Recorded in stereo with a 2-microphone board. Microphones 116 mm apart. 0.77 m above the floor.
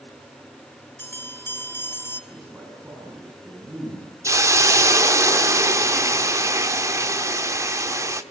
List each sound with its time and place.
1.0 s a bell: 20° left (ahead or behind), 1.9 m
2.3 s a man speaking: 10° right (ahead or behind), 9.5 m
4.2 s a hiss: 25° right (ahead or behind), 0.8 m